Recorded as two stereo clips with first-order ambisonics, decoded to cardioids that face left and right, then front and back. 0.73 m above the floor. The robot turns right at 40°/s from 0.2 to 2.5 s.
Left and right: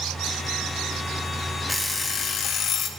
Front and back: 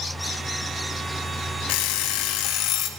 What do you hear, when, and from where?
1.7 s an alarm clock: straight ahead, 0.6 m; by 2.9 s 30° left, 0.6 m